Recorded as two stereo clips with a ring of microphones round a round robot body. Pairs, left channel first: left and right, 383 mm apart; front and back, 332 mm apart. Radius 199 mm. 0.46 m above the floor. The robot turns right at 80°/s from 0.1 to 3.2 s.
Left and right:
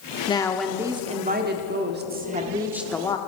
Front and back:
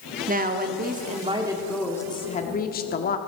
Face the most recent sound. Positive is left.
turn(degrees=25)